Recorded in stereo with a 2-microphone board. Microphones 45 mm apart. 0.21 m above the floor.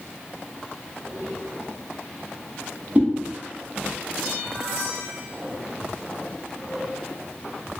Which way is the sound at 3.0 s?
40° right (ahead or behind).